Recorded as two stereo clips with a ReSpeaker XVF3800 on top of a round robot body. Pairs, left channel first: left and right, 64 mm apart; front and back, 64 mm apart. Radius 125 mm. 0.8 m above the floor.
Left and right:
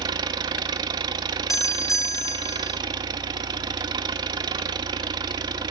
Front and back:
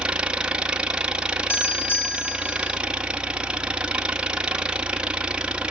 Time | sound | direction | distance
0.0 | an engine running | 105° right | 0.8 m
1.5 | a doorbell | 55° left | 1.9 m